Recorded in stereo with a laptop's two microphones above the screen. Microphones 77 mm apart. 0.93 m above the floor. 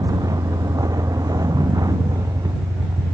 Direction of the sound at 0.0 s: 50° right (ahead or behind).